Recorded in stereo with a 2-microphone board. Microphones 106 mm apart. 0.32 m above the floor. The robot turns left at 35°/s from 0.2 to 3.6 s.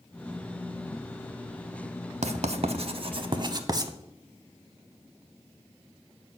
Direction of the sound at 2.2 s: 80° right.